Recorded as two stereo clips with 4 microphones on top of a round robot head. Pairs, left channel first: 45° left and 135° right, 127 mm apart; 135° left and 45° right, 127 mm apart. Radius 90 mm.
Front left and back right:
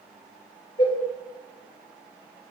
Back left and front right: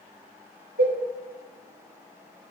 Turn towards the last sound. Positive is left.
turn(degrees=-10)